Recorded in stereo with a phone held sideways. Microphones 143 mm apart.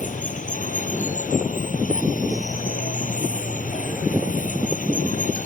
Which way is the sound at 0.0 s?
65° left (ahead or behind).